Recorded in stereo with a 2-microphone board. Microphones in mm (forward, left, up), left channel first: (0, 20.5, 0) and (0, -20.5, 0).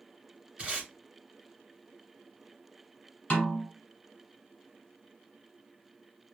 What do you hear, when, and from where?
0.6 s tape being pulled: 25° right (ahead or behind), 1.9 m
3.3 s a snare drum: 35° left (ahead or behind), 1.4 m